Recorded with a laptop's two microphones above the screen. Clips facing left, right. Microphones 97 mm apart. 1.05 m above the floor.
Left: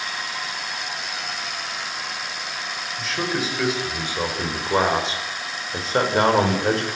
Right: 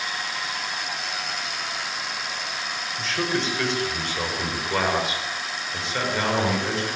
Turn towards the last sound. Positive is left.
turn(degrees=50)  # may be behind; listen again after turning